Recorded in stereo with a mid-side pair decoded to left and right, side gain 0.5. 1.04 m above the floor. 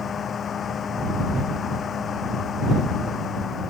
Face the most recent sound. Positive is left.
turn(degrees=50)